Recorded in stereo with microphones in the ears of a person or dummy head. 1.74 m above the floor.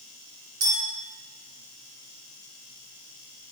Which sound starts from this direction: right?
A clink, at 0.6 s.